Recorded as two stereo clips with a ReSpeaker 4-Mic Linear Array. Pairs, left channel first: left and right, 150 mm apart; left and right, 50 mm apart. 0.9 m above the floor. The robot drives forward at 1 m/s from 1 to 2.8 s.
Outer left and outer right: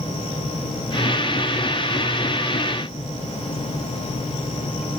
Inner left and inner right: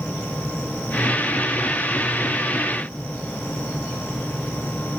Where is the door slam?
I don't hear a door slam.